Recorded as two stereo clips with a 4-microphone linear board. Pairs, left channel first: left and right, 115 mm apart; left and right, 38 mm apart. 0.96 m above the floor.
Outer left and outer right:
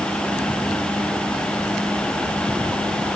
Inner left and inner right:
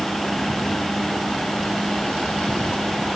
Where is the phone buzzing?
I don't hear a phone buzzing.